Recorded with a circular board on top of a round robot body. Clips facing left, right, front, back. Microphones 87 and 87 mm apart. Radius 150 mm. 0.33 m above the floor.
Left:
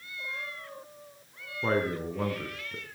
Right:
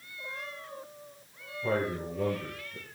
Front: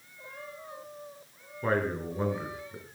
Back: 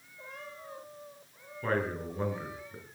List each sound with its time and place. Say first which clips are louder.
1.6 s a man speaking: left 2 dB, front 3 dB; 75° left, 6 m; by 2.8 s 85° left, 7 m